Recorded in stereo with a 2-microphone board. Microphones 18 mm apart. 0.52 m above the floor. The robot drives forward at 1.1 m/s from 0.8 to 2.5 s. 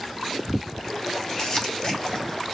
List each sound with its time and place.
1.4 s crumpling: 35° left (ahead or behind), 1.7 m